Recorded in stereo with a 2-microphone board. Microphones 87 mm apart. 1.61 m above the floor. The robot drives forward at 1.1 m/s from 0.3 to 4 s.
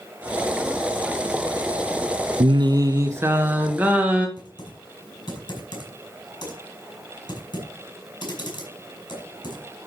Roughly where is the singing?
Right.